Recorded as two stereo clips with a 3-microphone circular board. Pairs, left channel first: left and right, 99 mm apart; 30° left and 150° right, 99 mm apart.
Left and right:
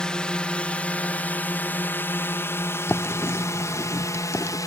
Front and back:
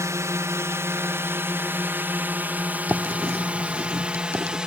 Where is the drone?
170° left; by 4.7 s 130° left.